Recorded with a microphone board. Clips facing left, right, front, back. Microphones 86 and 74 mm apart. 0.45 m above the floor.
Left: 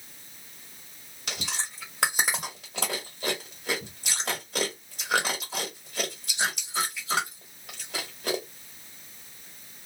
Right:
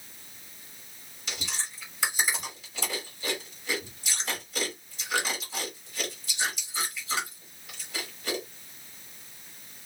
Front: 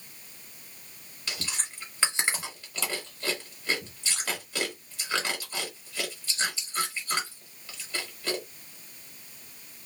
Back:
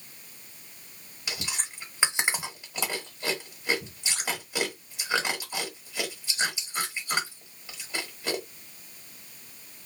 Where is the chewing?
110° left, 1.3 m.